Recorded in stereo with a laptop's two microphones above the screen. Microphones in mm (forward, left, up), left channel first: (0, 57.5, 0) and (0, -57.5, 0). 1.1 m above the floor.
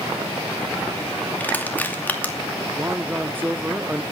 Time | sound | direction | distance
1.4 | crushing | 15° left (ahead or behind) | 2.5 m
2.8 | a man speaking | 15° right (ahead or behind) | 0.6 m